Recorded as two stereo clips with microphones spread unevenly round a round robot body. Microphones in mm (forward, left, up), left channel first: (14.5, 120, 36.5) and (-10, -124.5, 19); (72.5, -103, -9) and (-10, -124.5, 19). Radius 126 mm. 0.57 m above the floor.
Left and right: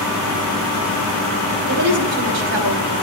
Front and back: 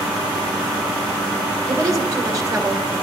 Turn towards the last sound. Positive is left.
turn(degrees=-110)